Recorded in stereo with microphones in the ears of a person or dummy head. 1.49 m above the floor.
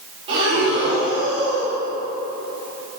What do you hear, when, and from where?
0.3 s breathing: 35° right (ahead or behind), 1.7 m